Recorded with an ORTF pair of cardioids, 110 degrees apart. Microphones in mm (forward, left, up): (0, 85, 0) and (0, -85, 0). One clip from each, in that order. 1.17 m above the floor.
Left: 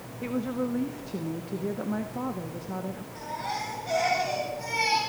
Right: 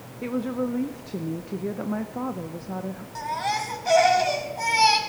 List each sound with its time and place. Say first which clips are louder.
0.2 s a woman speaking: right 3 dB; 15° right, 0.6 m
3.1 s a baby crying: right 7 dB; 65° right, 3 m